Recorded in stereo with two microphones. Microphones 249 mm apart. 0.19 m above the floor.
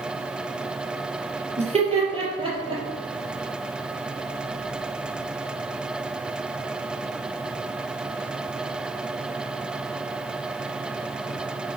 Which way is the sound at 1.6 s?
25° right (ahead or behind).